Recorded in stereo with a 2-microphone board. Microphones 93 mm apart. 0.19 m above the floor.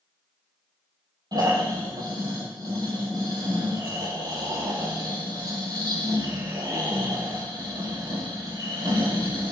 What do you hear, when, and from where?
1.3 s snoring: 45° right (ahead or behind), 5.5 m